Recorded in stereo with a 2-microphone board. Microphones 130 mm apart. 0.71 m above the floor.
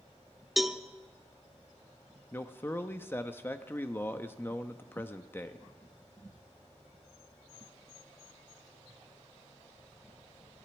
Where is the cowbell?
Centre (ahead or behind), 0.7 m.